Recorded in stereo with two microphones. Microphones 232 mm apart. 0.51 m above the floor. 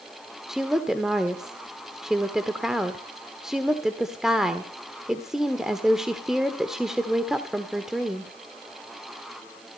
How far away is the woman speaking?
About 1.3 m.